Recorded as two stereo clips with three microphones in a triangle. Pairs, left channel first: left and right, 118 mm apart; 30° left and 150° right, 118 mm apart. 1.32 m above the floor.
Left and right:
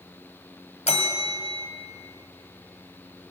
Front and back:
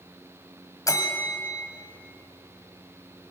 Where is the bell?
90° left, 2 m.